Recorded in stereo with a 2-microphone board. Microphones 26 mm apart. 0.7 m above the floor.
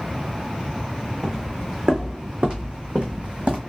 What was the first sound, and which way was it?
Footsteps, 20° right (ahead or behind).